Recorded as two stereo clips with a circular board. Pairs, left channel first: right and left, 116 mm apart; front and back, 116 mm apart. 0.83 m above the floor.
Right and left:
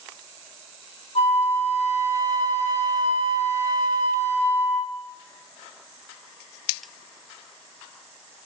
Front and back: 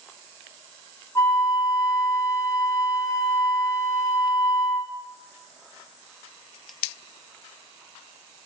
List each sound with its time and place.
1.1 s a flute: 70° right, 1.1 m